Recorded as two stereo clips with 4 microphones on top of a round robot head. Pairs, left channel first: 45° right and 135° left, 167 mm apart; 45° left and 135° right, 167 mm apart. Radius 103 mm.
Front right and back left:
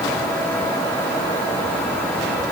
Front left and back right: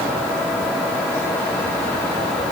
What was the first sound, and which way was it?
Only background noise.